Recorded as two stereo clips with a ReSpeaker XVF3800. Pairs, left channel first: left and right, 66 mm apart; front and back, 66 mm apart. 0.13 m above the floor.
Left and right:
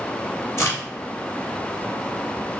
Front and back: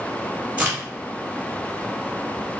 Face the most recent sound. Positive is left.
turn(degrees=125)